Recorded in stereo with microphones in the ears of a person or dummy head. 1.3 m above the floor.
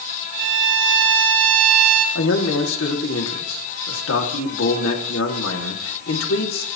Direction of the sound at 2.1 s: 85° left.